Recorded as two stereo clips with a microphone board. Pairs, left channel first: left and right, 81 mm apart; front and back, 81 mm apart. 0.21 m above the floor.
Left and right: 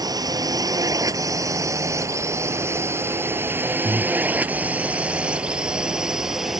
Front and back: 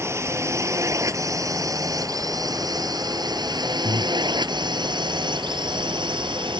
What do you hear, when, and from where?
0.0 s a drone: 125° right; by 6.6 s 175° right
3.8 s breathing: 30° left